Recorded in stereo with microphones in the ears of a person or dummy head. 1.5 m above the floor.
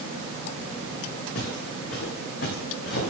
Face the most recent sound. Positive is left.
turn(degrees=60)  # may be behind; listen again after turning